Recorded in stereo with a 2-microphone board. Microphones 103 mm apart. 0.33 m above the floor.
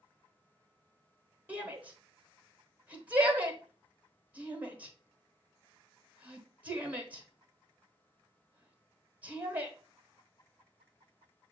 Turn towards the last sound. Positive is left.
turn(degrees=-15)  # may be behind; listen again after turning